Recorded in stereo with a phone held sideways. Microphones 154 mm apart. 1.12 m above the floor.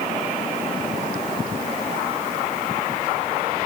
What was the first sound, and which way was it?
Only background noise.